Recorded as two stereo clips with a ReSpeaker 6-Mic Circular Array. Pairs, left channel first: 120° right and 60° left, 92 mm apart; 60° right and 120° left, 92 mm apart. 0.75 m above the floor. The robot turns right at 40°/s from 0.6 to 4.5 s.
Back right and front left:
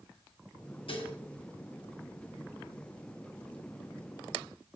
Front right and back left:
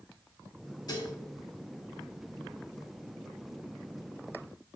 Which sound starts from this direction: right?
Dishes clattering, at 0.9 s.